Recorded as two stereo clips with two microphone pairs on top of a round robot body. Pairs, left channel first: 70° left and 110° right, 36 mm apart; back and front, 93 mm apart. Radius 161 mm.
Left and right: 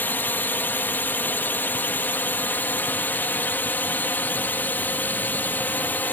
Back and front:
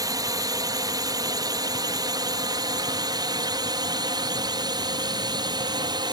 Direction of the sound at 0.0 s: 45° left.